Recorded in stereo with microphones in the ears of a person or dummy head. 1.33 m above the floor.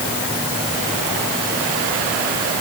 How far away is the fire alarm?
I don't hear a fire alarm.